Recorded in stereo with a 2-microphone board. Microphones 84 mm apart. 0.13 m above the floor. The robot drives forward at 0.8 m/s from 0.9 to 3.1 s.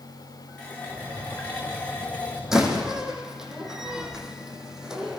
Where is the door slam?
5° right (ahead or behind), 5 m.